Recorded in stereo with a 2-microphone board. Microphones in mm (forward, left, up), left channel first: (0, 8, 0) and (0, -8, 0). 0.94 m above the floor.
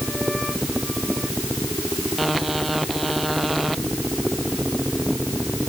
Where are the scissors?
I don't hear scissors.